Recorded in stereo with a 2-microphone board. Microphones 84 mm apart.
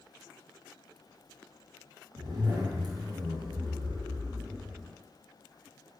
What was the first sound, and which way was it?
A zipper, 55° right (ahead or behind).